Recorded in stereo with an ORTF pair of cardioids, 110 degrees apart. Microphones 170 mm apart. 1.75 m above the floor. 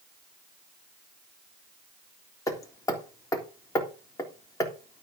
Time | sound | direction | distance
2.5 | hammering | 20° left | 3.5 m